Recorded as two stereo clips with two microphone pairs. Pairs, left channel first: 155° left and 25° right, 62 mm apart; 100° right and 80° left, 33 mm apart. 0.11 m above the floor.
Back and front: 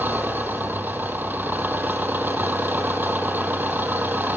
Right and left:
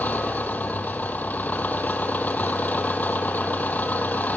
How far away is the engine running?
About 0.9 m.